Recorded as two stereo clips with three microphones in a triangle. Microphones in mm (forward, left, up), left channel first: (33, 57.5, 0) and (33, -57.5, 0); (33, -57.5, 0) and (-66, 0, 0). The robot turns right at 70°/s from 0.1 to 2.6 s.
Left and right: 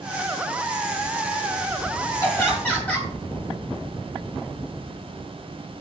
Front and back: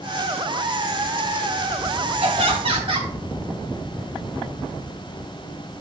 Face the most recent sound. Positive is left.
turn(degrees=170)